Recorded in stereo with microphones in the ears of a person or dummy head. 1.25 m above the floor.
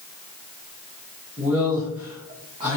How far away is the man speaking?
About 1.1 m.